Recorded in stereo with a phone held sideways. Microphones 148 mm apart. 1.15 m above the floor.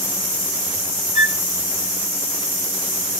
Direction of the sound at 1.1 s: 50° left (ahead or behind).